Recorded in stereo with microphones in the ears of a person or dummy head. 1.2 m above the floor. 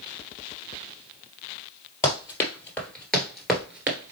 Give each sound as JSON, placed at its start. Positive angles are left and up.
{"t": 2.0, "sound": "running footsteps", "side_deg": 20, "distance_m": 1.9}